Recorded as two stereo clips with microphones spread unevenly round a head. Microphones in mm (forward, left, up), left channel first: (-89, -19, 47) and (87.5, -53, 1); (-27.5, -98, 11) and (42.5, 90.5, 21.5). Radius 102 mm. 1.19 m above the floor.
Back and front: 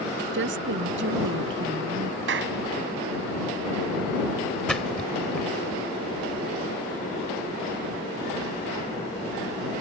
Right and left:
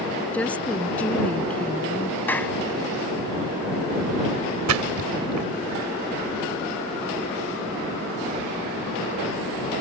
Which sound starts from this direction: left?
A splash, at 4.7 s.